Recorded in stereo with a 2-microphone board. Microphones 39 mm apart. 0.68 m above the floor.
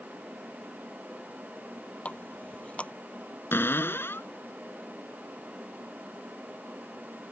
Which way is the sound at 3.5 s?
85° left.